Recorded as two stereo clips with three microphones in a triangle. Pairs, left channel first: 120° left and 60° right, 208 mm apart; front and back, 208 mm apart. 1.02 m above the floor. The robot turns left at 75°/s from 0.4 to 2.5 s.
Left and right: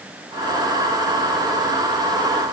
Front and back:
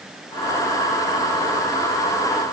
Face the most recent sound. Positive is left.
No sound to turn to.